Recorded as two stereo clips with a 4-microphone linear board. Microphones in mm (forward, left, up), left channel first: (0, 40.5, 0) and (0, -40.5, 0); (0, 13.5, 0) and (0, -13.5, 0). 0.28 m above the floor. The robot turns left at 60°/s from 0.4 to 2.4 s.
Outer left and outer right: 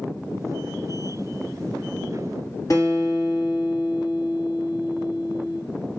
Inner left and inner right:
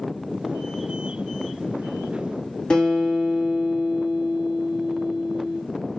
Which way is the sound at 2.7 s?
40° left (ahead or behind).